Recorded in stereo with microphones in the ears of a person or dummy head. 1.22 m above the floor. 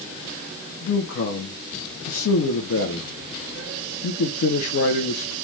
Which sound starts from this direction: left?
A man speaking, at 0.8 s.